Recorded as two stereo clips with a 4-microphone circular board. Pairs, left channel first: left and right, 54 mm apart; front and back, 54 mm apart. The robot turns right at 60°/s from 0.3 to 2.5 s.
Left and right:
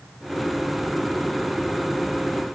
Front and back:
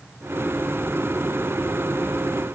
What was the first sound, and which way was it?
Only background noise.